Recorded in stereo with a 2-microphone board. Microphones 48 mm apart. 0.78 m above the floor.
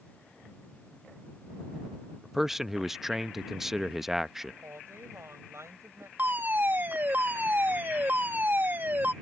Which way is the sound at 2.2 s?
5° right (ahead or behind).